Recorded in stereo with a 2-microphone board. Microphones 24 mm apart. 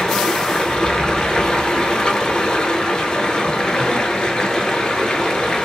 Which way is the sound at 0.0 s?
45° left (ahead or behind).